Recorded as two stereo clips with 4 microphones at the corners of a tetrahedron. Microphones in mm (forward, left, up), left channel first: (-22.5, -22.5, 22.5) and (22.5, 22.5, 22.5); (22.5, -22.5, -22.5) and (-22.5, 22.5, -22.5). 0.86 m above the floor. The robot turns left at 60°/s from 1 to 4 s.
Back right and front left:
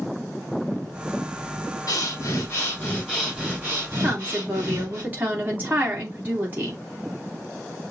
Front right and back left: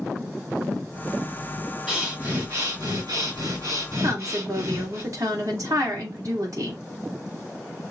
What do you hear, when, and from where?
1.9 s breathing: 135° right, 4 m; by 5.0 s 95° left, 4 m
4.0 s a woman speaking: 110° left, 2.5 m